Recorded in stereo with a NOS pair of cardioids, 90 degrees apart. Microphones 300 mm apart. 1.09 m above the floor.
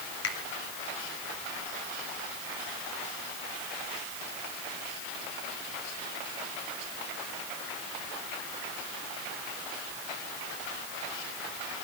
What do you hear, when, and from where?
0.2 s a finger snap: 60° left, 2 m